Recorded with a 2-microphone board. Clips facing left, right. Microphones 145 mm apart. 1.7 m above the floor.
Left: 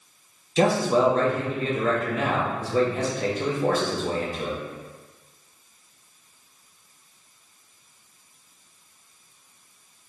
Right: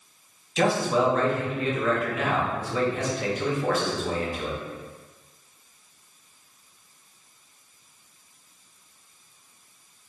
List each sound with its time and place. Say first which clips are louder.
0.6 s a man speaking: left 3 dB; 35° left (ahead or behind), 0.9 m